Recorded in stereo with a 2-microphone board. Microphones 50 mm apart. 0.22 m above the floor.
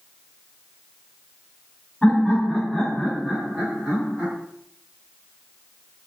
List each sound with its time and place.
2.0 s laughter: 25° left (ahead or behind), 1.3 m; by 4.3 s 25° right (ahead or behind), 1.5 m